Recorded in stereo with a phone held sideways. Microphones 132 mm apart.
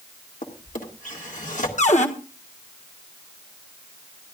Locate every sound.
0.4 s a drawer: 75° left (ahead or behind), 2 m
1.8 s a cupboard door: 60° left (ahead or behind), 1.4 m